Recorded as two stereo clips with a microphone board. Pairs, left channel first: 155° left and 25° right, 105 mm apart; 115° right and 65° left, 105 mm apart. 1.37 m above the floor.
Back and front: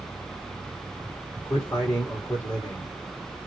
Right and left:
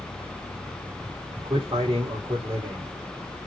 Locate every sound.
1.4 s a man speaking: 105° left, 3 m